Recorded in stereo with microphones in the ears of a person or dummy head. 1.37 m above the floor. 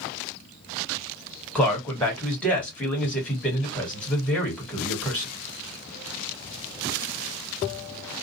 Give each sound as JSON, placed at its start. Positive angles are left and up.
{"t": 1.6, "sound": "a man speaking", "side_deg": 5, "distance_m": 1.4}